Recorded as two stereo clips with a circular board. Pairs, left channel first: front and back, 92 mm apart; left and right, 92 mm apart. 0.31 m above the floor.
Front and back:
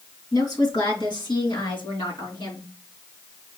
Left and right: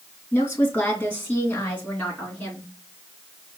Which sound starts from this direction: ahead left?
A woman speaking, at 0.3 s.